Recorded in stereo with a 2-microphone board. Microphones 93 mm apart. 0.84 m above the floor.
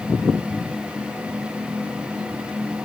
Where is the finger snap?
No finger snap in this recording.